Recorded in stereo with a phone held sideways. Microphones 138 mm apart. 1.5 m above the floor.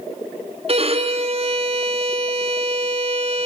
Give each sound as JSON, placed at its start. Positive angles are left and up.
{"t": 0.7, "sound": "a violin", "side_deg": -45, "distance_m": 2.0}